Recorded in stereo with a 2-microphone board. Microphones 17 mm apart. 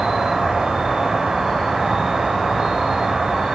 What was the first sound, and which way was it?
An insect, 55° right (ahead or behind).